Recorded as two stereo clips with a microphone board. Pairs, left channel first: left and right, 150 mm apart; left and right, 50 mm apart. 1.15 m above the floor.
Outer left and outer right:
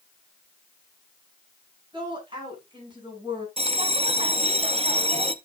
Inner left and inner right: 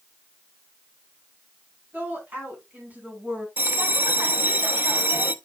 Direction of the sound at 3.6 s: 40° right (ahead or behind).